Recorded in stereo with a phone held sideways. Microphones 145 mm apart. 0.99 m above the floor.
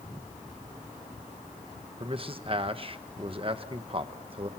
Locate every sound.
2.0 s a man speaking: 40° right (ahead or behind), 1.1 m